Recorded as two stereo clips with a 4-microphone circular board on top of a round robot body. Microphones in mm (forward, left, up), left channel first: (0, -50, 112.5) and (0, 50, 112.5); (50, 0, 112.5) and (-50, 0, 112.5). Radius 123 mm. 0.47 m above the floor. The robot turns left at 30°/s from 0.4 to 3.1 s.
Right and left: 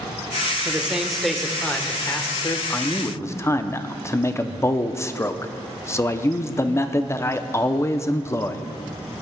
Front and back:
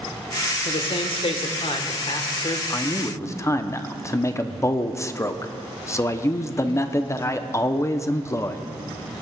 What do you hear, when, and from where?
0.7 s a man speaking: 15° left, 1.6 m; by 2.6 s 40° right, 1.6 m
2.7 s a man speaking: 30° right, 1.0 m; by 8.6 s 45° right, 1.0 m